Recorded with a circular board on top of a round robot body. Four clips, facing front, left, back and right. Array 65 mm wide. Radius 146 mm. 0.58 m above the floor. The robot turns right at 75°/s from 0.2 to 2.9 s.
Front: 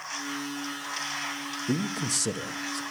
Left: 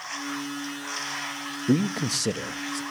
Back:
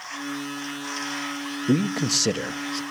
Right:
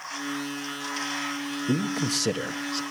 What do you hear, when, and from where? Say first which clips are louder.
1.7 s a man speaking: left 3 dB, back 7 dB; 155° left, 1.0 m; by 2.8 s 120° right, 1.0 m